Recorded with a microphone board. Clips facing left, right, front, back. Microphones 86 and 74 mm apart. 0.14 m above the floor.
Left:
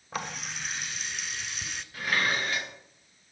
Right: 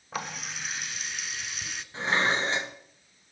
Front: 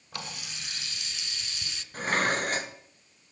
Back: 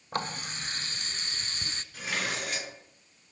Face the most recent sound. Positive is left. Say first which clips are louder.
# right 3 dB, front 7 dB
turn(degrees=-35)